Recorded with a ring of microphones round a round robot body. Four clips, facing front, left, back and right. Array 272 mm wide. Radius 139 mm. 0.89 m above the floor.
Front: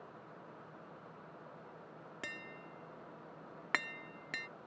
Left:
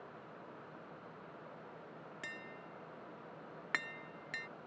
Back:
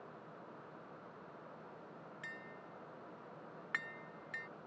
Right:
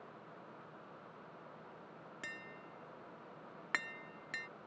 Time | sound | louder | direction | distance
2.2 | tapping | even, front 5 dB | 5° left | ?